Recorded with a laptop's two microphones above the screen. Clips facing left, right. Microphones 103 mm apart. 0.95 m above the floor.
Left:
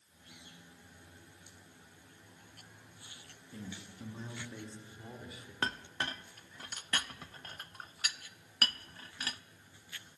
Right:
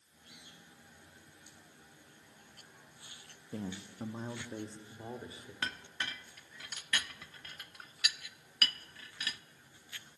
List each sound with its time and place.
3.5 s a man speaking: 55° right (ahead or behind), 1.5 m; by 5.5 s 30° right (ahead or behind), 4 m
5.6 s a clink: 35° left (ahead or behind), 0.6 m